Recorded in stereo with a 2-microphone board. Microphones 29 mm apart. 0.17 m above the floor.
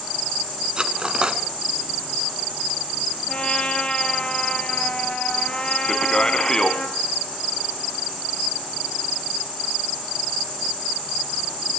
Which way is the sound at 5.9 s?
25° left (ahead or behind).